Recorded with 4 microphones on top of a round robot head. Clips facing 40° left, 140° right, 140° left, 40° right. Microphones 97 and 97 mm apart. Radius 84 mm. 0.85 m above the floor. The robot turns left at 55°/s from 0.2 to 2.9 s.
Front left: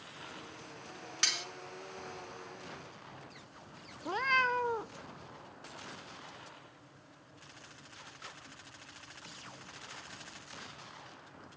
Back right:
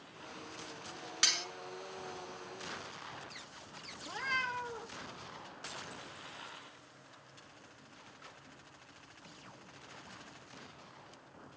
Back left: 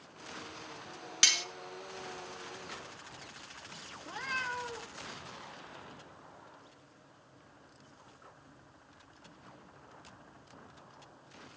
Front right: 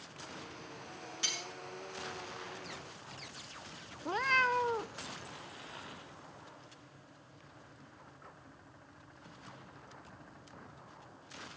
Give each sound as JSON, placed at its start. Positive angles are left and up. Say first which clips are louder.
{"t": 1.2, "sound": "cutlery clinking", "louder": "even, back left 8 dB", "azimuth_deg": 130, "distance_m": 0.7}
{"t": 4.0, "sound": "a cat meowing", "louder": "front left 7 dB, front right 8 dB", "azimuth_deg": 0, "distance_m": 0.6}